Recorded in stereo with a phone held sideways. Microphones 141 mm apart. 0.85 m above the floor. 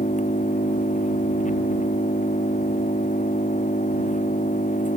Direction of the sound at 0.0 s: 60° left (ahead or behind).